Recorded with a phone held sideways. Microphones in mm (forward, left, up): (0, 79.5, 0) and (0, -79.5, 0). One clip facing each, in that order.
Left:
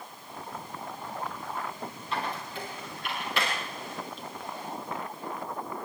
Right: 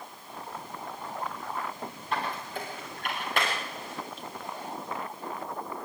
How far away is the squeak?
About 7 m.